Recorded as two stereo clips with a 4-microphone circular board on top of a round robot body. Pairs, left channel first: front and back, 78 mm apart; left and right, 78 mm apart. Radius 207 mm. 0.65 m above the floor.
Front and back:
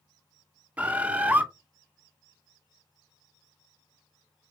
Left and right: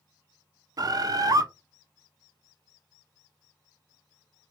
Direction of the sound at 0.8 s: 110° right.